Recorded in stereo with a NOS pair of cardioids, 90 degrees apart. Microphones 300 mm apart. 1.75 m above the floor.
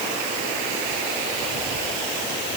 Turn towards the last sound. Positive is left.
No sound to turn to.